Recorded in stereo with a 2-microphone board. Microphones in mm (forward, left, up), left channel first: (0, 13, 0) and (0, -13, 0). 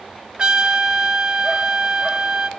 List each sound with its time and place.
0.4 s a trumpet: 30° right (ahead or behind), 1.1 m